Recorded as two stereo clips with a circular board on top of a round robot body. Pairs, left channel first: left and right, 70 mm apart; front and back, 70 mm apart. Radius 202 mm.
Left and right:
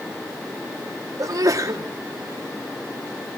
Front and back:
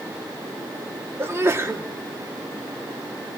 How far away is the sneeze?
About 2.5 m.